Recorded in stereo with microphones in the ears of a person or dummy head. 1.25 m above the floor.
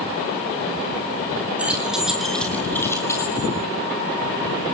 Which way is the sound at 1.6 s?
10° right (ahead or behind).